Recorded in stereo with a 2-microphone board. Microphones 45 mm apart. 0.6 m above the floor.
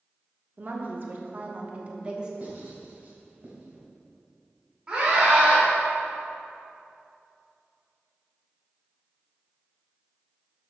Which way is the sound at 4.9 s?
25° right (ahead or behind).